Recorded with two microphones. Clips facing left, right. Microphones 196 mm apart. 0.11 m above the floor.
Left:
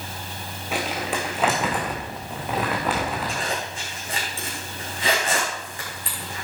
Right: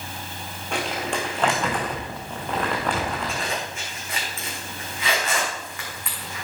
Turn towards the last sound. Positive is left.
turn(degrees=30)  # may be behind; listen again after turning